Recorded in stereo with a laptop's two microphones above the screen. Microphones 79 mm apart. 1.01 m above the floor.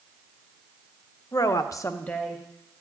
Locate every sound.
1.3 s a woman speaking: 45° left (ahead or behind), 1.1 m; by 2.4 s 5° right (ahead or behind), 1.0 m